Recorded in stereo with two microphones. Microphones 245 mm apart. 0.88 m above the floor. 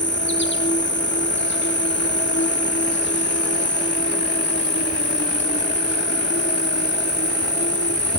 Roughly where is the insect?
Left.